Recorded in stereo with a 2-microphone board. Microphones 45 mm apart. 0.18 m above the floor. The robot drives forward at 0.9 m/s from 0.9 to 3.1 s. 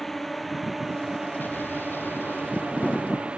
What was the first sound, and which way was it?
A drone, 5° left (ahead or behind).